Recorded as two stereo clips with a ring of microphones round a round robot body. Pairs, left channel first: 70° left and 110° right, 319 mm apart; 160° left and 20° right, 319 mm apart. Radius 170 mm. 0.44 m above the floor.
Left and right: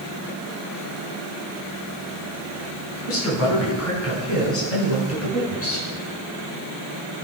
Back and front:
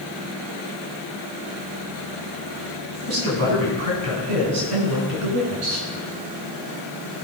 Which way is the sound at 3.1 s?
20° left.